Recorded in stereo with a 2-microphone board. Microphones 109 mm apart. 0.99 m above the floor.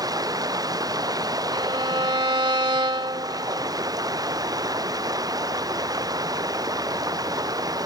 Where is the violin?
45° right (ahead or behind).